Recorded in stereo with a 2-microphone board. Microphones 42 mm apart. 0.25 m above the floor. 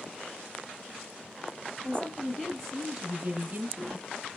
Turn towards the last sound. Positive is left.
turn(degrees=-40)  # may be behind; listen again after turning